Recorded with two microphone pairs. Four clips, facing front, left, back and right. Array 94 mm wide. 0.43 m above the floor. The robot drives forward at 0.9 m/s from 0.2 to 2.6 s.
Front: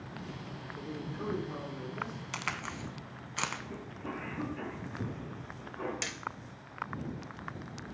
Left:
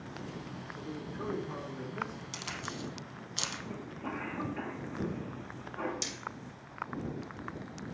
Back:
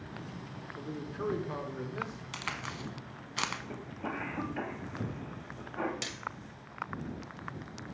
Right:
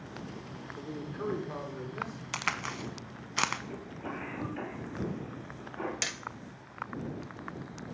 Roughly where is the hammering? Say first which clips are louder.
Right 3 dB, front 1 dB; right.